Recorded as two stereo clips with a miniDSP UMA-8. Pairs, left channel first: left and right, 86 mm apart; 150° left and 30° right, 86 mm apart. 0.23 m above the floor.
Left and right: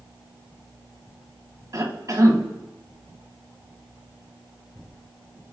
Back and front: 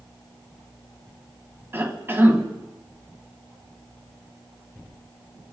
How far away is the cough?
About 1.8 m.